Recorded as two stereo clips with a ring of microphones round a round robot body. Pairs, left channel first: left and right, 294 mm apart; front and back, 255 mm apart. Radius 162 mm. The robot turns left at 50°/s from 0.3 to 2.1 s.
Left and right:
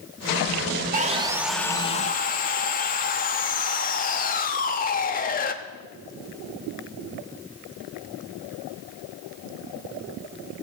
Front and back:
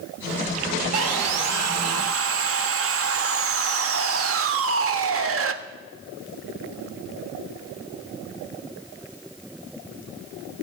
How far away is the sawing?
About 0.8 m.